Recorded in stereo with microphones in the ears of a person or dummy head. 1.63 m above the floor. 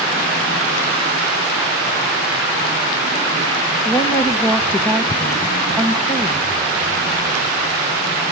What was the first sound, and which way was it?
A woman speaking, 10° left (ahead or behind).